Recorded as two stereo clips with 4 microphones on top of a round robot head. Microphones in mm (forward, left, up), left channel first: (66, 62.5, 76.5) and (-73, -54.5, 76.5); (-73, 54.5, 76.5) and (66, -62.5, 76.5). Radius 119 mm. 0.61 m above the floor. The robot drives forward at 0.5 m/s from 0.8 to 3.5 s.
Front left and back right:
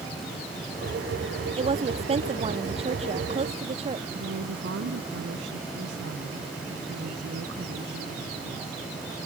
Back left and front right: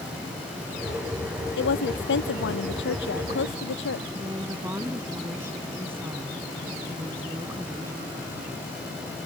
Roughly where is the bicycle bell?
No bicycle bell in this recording.